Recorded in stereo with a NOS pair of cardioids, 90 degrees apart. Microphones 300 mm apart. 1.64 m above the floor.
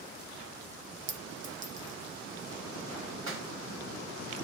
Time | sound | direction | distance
1.1 | a clink | 40° right | 1.5 m
3.3 | a clap | 65° right | 3.5 m